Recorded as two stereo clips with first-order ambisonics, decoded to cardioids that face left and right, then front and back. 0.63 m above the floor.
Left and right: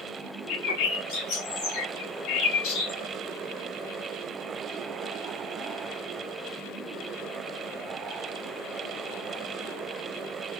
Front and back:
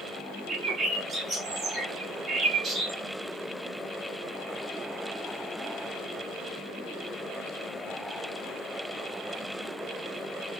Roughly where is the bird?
Left.